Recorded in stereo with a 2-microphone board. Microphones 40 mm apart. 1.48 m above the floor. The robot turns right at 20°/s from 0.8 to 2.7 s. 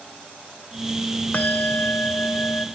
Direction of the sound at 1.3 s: 45° left (ahead or behind).